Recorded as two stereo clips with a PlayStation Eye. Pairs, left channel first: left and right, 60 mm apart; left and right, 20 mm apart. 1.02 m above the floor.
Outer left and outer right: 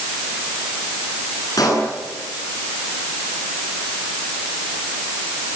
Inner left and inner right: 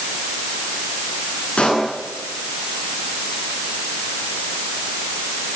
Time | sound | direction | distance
1.6 | a pop | 75° left (ahead or behind) | 9 m